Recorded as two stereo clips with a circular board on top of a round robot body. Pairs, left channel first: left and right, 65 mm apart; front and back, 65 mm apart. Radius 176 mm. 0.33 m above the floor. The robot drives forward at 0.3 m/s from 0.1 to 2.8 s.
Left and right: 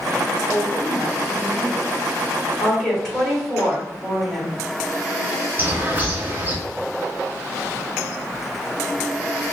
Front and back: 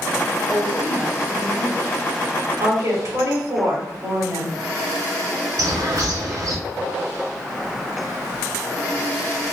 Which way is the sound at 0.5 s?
120° left.